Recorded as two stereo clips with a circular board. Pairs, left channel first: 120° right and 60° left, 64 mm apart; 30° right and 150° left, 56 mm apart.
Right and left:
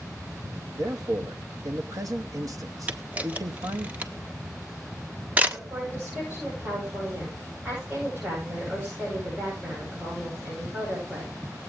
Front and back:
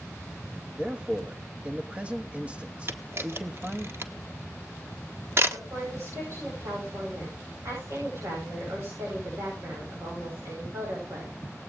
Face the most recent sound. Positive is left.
turn(degrees=125)